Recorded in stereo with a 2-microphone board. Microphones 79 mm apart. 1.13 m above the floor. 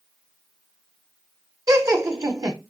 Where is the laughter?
45° right (ahead or behind), 0.8 m.